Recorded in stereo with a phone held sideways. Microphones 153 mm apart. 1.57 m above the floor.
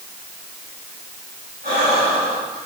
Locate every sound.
1.6 s breathing: 80° right, 7 m